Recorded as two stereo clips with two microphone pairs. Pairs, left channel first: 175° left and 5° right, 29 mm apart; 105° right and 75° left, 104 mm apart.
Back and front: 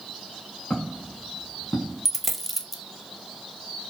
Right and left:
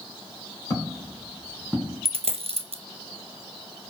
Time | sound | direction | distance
0.7 | footsteps | 165° right | 2.0 m
2.0 | a dropped coin | 90° left | 0.5 m